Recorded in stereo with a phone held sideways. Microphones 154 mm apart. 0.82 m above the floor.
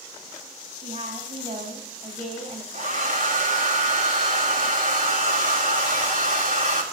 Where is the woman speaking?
40° right (ahead or behind), 4 m.